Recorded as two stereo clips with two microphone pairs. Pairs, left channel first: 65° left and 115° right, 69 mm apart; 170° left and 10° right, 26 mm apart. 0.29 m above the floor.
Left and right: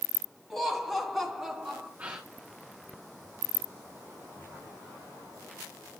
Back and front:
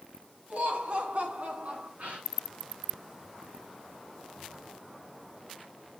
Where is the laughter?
25° right, 3 m; by 1.9 s 30° right, 4 m.